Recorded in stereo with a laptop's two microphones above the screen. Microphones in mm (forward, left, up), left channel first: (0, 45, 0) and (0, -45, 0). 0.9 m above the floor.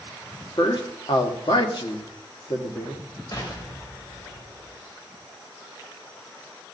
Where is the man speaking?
65° left (ahead or behind), 1.7 m.